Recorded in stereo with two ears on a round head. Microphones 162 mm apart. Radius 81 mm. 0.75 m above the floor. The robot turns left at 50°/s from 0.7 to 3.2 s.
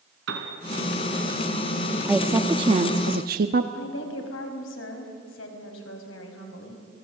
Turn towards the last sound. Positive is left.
turn(degrees=70)  # may be behind; listen again after turning